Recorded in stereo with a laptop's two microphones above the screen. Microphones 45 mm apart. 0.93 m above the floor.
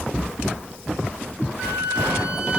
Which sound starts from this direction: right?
A flute, at 1.6 s.